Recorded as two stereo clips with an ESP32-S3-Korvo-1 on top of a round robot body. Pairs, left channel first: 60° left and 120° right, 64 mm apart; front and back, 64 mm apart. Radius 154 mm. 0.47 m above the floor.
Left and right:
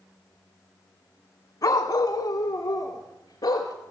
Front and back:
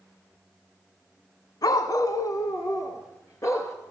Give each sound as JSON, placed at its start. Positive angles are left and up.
{"t": 1.6, "sound": "a dog barking", "azimuth_deg": 25, "distance_m": 1.1}